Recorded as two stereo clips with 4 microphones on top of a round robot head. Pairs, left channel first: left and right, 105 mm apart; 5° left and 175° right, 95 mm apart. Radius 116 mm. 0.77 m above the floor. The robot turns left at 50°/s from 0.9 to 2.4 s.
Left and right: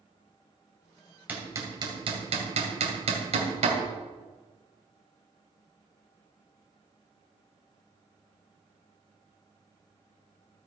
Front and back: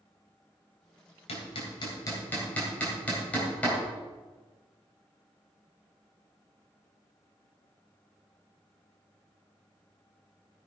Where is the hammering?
15° right, 2.5 m; by 3.8 s 70° right, 2.5 m.